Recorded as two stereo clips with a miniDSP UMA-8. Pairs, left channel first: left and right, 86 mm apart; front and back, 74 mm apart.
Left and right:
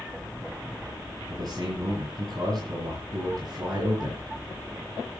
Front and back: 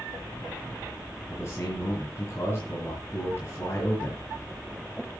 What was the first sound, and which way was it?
A man speaking, 50° right.